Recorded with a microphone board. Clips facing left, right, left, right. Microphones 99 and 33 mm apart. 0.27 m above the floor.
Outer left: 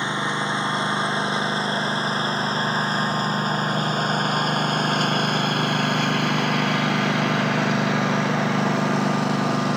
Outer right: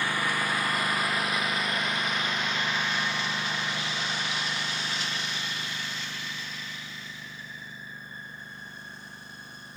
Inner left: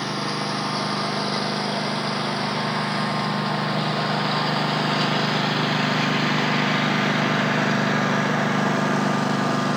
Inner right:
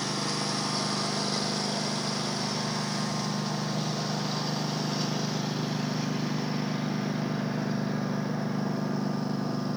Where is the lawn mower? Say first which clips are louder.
Outer left 4 dB, inner left 5 dB; 20° left (ahead or behind); by 9.8 s 85° left.